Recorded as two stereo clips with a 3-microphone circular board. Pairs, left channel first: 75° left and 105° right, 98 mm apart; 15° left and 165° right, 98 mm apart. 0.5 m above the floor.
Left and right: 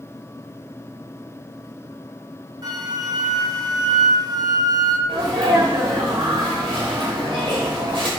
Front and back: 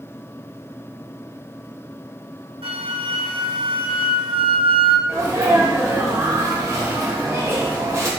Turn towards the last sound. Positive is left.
turn(degrees=-110)